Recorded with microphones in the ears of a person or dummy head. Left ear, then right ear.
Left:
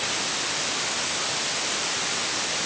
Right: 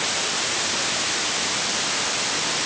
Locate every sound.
Only background noise.